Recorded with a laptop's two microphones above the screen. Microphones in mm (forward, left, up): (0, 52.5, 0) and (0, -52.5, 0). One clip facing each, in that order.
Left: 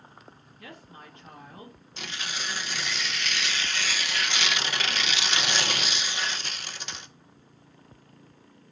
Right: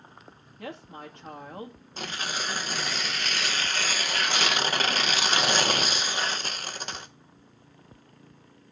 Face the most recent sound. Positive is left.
turn(degrees=-45)  # may be behind; listen again after turning